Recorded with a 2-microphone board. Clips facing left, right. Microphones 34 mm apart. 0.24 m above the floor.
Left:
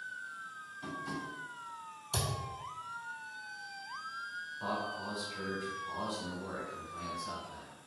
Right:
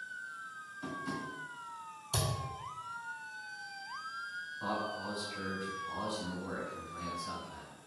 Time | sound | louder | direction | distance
0.8 | tapping | right 1 dB | 5° left (ahead or behind) | 1.6 m
2.1 | a thud | right 1 dB | 10° right (ahead or behind) | 1.9 m
4.6 | a man speaking | right 1 dB | 15° left (ahead or behind) | 1.4 m